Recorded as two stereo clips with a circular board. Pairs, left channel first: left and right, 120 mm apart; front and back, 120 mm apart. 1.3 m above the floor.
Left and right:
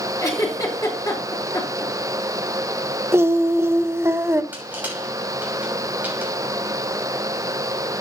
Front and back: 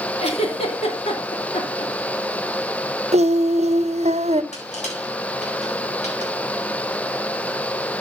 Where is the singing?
160° right, 0.6 m.